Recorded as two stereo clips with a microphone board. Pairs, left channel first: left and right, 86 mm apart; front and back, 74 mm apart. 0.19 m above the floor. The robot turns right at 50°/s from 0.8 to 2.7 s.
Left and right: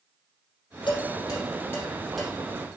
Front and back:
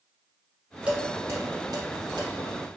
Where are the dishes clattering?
110° left, 4 m; by 2.3 s straight behind, 4 m.